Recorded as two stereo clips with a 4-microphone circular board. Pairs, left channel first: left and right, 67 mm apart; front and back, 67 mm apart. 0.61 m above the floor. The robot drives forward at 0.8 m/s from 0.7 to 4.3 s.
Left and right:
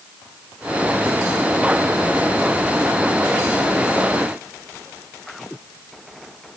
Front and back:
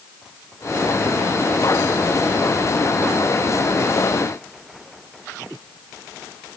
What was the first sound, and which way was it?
Only background noise.